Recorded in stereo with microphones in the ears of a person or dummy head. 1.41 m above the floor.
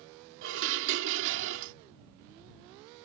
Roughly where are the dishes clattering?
Right.